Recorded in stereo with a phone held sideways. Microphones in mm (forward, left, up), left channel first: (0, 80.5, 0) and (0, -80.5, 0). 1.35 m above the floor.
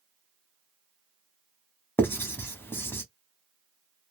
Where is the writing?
15° left (ahead or behind), 0.7 m.